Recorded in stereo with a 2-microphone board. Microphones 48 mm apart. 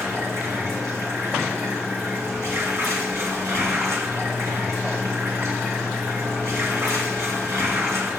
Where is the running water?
85° right, 4 m.